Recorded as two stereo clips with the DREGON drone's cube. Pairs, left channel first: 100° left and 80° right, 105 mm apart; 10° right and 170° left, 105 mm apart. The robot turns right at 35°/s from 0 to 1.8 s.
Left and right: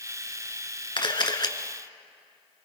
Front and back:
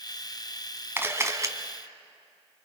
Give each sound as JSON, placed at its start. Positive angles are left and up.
{"t": 1.0, "sound": "a camera shutter", "azimuth_deg": 105, "distance_m": 1.4}